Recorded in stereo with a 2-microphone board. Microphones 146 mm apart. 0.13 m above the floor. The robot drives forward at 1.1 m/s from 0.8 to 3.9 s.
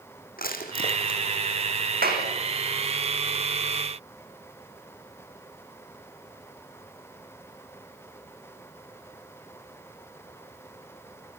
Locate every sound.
0.4 s crushing: 70° left (ahead or behind), 4.5 m; by 1.2 s 65° left (ahead or behind), 4.5 m
2.0 s a clap: 80° right, 7.5 m